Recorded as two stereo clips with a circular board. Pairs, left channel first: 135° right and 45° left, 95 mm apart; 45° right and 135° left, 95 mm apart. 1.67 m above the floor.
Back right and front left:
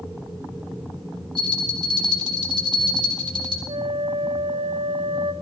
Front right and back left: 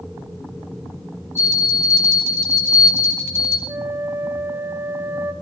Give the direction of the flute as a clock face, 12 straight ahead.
10 o'clock.